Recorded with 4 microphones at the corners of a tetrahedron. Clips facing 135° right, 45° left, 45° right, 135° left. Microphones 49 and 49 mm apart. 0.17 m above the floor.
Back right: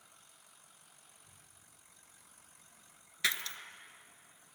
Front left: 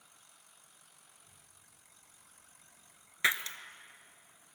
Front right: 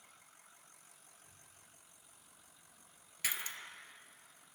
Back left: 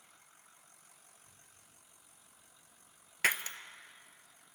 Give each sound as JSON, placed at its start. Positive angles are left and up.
{"t": 1.1, "sound": "a child speaking", "azimuth_deg": -175, "distance_m": 6.5}
{"t": 3.2, "sound": "breaking glass", "azimuth_deg": 110, "distance_m": 0.6}